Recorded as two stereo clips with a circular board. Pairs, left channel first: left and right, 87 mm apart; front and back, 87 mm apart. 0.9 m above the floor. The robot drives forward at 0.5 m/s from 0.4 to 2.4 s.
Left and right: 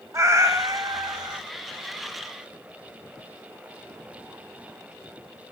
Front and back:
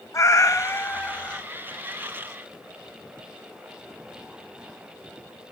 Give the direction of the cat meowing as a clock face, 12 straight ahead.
2 o'clock.